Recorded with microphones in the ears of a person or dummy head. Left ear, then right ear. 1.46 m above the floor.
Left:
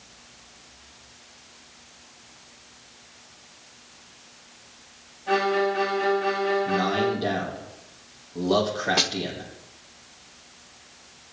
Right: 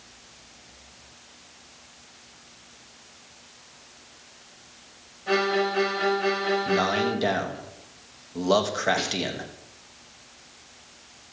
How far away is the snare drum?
About 1.0 m.